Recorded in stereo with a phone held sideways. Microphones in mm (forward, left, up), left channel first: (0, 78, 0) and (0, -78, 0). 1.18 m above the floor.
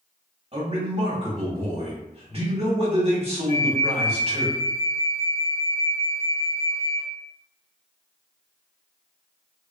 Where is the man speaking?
40° right (ahead or behind), 1.2 m.